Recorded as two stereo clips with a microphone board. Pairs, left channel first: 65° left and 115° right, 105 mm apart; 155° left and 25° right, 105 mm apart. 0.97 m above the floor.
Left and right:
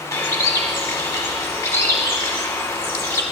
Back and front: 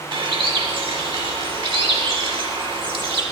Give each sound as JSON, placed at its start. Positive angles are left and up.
{"t": 0.1, "sound": "a bird", "azimuth_deg": 10, "distance_m": 1.1}